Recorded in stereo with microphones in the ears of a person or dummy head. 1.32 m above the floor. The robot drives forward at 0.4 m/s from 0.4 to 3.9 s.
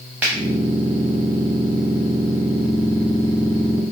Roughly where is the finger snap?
Centre.